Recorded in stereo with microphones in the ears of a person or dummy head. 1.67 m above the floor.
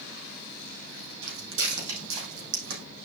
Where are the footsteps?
75° right (ahead or behind), 5.5 m; by 2.9 s 65° right (ahead or behind), 5.5 m.